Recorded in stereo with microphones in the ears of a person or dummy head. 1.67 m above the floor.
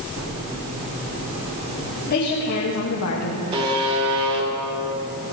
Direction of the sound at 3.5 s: 25° right (ahead or behind).